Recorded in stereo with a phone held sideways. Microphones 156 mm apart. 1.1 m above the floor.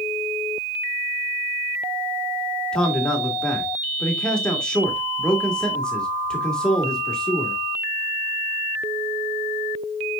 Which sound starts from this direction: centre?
A man speaking, at 2.7 s.